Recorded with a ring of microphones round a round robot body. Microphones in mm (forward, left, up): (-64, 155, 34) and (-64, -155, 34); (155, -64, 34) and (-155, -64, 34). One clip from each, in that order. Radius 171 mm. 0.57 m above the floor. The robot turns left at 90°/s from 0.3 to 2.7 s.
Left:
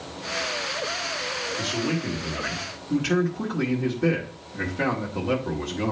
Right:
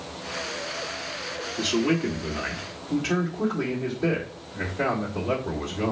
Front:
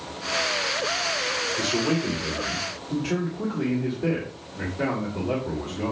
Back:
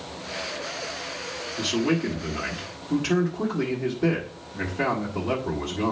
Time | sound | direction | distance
1.6 | a man speaking | 105° right | 1.9 m